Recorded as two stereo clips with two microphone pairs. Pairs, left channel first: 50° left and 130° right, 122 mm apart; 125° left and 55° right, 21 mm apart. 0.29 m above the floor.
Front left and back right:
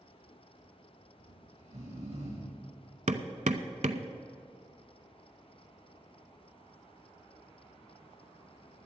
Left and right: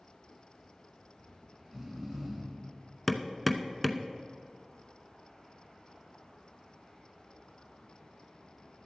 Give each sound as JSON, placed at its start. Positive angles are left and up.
{"t": 1.2, "sound": "snoring", "azimuth_deg": -125, "distance_m": 4.0}
{"t": 3.1, "sound": "hammering", "azimuth_deg": -145, "distance_m": 0.6}